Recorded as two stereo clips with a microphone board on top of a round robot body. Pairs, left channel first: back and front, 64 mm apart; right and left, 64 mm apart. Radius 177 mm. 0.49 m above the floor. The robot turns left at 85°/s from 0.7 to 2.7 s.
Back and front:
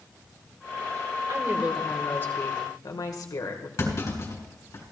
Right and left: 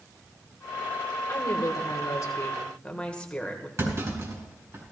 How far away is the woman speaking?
About 2 m.